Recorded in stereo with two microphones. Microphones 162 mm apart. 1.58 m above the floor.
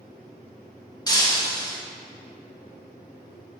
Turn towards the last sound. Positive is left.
turn(degrees=25)  # may be behind; listen again after turning